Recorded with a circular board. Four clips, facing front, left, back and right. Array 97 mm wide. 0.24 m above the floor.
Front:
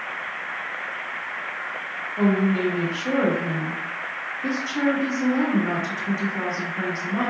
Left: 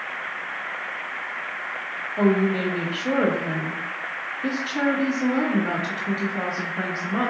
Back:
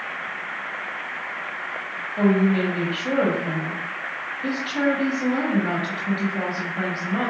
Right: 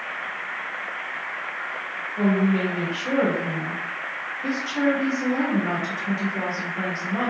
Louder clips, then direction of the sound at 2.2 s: Left 1 dB, back 2 dB; 155° left.